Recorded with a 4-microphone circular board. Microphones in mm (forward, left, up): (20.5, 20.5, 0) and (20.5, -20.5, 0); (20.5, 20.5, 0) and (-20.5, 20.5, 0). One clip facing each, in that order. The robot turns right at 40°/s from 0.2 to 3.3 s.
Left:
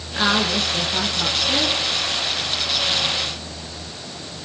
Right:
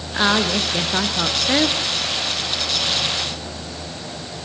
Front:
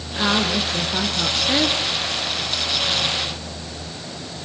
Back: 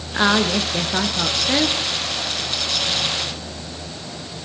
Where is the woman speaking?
155° right, 1.9 m; by 1.8 s 90° right, 1.9 m.